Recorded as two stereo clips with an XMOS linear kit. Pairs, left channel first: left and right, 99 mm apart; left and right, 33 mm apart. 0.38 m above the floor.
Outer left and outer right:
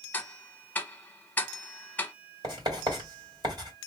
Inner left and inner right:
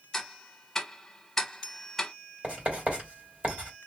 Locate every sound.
0.1 s ticking: 15° left (ahead or behind), 0.5 m
2.4 s writing: 45° right (ahead or behind), 2 m